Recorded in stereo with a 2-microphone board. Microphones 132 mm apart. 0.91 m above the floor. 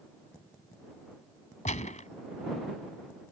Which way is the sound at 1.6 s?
65° left (ahead or behind).